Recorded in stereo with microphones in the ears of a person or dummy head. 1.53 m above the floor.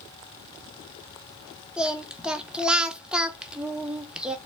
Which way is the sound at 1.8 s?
5° right (ahead or behind).